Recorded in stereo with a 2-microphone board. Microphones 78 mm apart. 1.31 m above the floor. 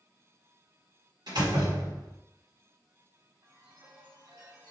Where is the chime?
70° right (ahead or behind), 1.5 m.